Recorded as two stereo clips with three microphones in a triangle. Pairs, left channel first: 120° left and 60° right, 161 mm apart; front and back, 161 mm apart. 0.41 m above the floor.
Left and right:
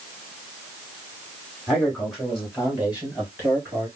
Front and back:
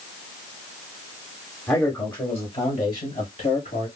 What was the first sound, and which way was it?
A man speaking, 40° left.